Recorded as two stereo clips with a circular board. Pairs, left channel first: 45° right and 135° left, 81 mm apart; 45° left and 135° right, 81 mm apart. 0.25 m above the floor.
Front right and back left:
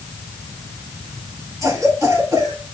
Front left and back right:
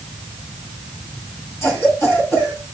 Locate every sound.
1.6 s a cough: 95° left, 3 m